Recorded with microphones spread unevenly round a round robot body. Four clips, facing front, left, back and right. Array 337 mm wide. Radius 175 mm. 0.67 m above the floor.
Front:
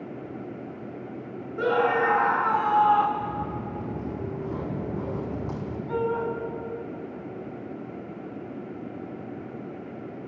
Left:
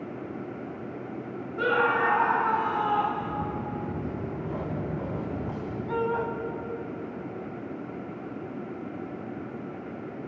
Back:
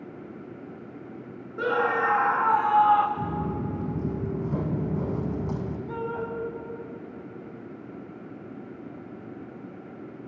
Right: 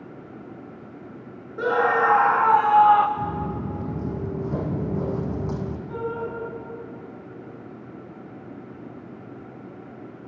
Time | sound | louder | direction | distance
1.6 | a scream | right 4 dB, front 2 dB | 175° left | 0.7 m
3.2 | footsteps | right 3 dB, back 1 dB | 155° right | 3 m
5.9 | a shout | left 4 dB, front 7 dB | 95° left | 6 m